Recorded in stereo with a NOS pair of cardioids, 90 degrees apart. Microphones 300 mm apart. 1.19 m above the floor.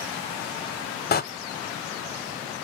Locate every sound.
1.1 s a door slam: 35° left, 0.5 m